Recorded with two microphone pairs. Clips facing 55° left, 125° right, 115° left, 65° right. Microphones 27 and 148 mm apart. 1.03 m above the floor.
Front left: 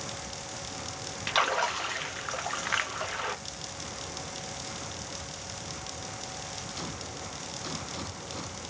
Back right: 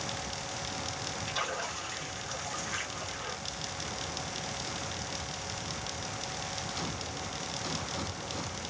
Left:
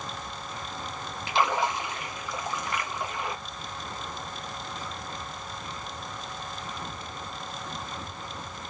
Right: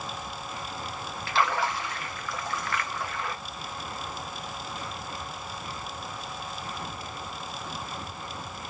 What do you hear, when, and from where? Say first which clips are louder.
1.3 s a splash: front left 10 dB, left 1 dB; 50° left, 0.5 m